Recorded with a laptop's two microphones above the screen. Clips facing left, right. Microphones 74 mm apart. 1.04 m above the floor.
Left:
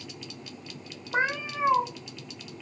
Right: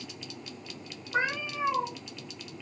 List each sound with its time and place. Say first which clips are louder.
1.1 s a cat meowing: left 2 dB; 45° left (ahead or behind), 0.8 m